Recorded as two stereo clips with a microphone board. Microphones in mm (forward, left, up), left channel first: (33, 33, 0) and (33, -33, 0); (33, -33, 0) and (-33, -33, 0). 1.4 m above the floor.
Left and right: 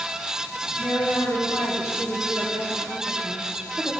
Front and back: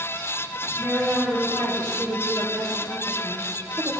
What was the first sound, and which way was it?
A woman speaking, 130° left.